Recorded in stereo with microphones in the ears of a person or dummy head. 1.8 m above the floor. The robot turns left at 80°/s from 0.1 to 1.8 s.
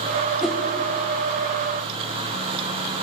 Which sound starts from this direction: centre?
A whoosh, at 0.4 s.